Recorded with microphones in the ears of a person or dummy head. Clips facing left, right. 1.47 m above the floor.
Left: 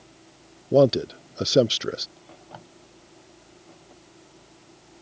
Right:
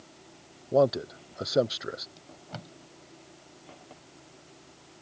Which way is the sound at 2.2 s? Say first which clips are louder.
Even; 35° right (ahead or behind).